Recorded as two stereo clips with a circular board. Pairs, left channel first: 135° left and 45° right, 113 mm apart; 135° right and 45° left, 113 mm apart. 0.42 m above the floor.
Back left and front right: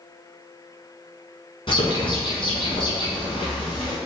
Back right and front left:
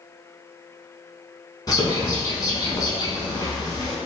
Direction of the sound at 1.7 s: 175° left.